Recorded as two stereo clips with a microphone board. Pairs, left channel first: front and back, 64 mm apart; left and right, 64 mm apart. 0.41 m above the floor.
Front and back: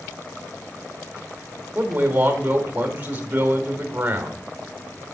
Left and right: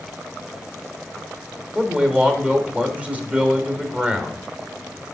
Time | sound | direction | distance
1.8 | a man speaking | 140° right | 1.2 m